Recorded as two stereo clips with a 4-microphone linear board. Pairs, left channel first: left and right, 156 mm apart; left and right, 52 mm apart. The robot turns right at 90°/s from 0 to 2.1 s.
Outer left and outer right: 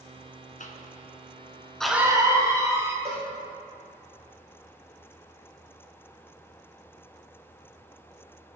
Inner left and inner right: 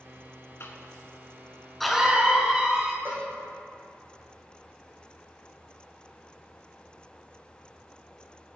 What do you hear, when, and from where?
0.6 s a cough: 55° left (ahead or behind), 2.5 m; by 3.0 s 20° right (ahead or behind), 2.5 m
3.0 s a cowbell: 40° right (ahead or behind), 5 m